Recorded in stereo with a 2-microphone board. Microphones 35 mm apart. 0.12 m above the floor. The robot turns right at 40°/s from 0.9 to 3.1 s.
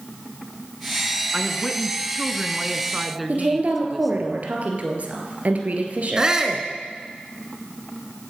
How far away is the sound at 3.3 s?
About 2.5 m.